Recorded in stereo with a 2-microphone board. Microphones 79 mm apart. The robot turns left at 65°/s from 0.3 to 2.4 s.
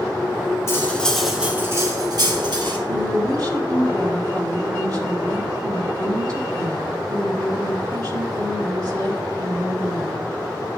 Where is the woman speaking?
50° right (ahead or behind), 1.9 m.